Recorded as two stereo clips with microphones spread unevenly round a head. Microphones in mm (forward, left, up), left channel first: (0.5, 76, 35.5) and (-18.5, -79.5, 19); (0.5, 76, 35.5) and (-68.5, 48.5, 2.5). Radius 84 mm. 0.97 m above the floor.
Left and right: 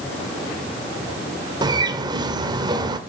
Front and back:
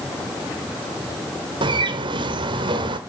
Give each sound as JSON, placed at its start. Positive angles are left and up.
{"t": 1.6, "sound": "a bird", "azimuth_deg": -160, "distance_m": 1.7}